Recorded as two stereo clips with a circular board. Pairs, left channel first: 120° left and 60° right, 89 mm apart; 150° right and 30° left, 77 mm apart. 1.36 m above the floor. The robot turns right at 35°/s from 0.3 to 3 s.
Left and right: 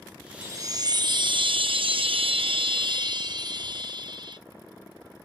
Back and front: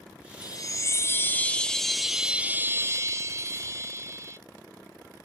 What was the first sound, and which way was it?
A chime, 115° right.